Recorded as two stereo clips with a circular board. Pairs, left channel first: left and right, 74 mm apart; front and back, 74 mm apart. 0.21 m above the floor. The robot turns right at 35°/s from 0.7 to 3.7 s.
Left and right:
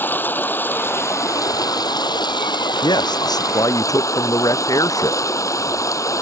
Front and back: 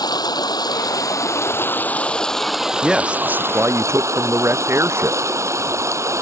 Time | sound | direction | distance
0.0 | running water | 25° left | ?
2.8 | a man speaking | 95° left | ?